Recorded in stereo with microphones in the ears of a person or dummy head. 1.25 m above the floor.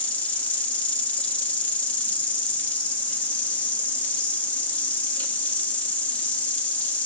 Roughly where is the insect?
Centre.